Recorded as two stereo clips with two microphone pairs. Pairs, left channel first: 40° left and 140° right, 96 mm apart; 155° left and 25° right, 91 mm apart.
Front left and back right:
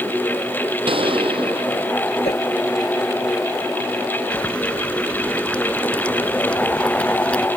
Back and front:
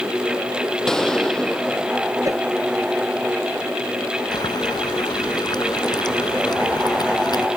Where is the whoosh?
30° left.